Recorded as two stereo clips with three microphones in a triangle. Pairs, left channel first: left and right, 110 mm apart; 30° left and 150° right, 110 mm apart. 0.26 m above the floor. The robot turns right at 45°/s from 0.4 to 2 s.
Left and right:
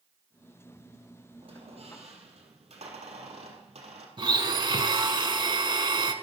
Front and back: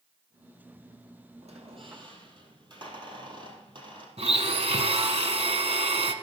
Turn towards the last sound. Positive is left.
turn(degrees=-135)